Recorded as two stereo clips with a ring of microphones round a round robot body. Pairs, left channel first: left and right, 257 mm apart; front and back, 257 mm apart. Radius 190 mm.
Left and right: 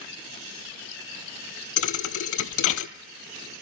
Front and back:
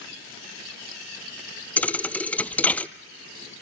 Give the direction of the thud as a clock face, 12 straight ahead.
9 o'clock.